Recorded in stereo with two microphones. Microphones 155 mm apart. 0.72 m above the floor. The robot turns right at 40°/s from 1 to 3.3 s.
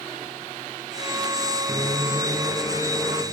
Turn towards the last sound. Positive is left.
turn(degrees=15)